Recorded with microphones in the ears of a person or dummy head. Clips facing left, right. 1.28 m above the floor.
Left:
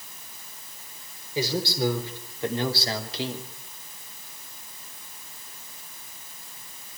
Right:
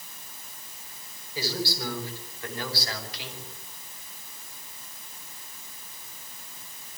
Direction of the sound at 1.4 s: 20° left (ahead or behind).